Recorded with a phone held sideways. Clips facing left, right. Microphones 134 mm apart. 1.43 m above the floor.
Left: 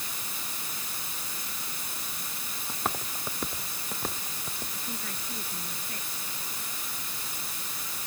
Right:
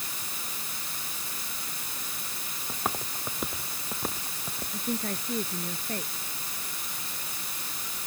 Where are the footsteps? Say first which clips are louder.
Even; centre (ahead or behind); by 4.8 s 5° right (ahead or behind).